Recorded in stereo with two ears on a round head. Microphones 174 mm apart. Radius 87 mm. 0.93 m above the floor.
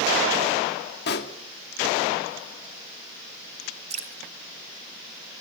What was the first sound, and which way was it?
A pop, 55° left (ahead or behind).